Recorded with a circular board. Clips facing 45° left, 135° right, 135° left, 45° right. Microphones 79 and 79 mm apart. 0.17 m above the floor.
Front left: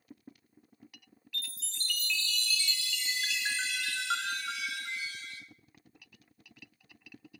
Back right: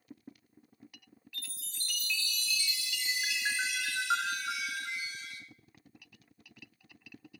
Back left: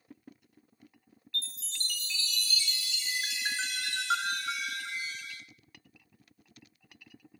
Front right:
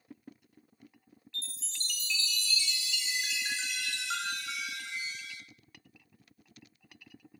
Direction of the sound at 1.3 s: 155° left.